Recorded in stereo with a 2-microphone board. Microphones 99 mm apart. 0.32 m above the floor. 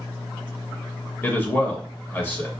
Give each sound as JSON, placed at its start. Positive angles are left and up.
{"t": 1.2, "sound": "a man speaking", "side_deg": 20, "distance_m": 0.9}